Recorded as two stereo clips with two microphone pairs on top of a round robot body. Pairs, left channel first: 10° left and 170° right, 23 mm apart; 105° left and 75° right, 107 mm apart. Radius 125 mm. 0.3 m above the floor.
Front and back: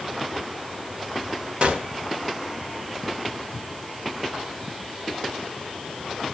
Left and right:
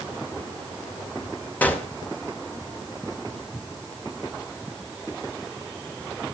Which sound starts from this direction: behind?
A gunshot, at 1.6 s.